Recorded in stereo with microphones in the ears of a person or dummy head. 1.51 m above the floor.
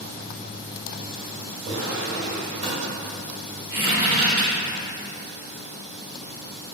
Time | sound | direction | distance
1.6 | a drawer | 45° right (ahead or behind) | 1.5 m
3.7 | a squeak | 40° right (ahead or behind) | 1.5 m